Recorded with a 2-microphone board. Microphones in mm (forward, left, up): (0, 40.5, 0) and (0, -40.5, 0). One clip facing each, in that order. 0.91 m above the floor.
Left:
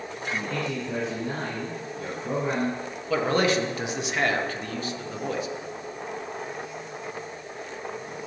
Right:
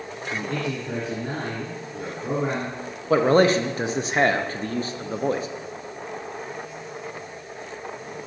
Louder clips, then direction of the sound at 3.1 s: Right 6 dB; 35° right (ahead or behind).